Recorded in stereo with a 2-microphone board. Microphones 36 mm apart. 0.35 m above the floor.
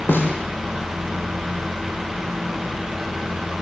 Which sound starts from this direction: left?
A snare drum, at 0.1 s.